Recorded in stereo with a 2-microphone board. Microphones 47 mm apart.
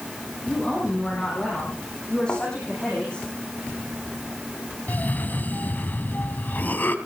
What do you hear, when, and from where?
0.5 s a woman speaking: 20° left (ahead or behind), 7.5 m
2.3 s a thud: 40° left (ahead or behind), 6.5 m
4.9 s a cough: 40° left (ahead or behind), 1.8 m